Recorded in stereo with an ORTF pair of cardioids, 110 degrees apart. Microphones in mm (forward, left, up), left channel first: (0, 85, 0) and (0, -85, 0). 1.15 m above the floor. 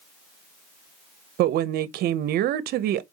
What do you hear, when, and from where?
1.4 s a woman speaking: 65° right, 0.6 m